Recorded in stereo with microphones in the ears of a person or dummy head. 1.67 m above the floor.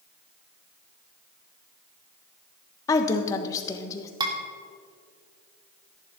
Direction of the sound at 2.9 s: 20° left (ahead or behind).